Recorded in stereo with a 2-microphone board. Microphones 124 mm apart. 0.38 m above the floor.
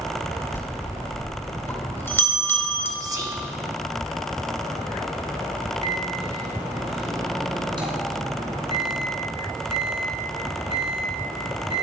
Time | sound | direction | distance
0.5 | a bell | 20° left (ahead or behind) | 1.1 m
3.0 | whispering | 30° right (ahead or behind) | 0.9 m
5.8 | a microwave | 40° right (ahead or behind) | 1.9 m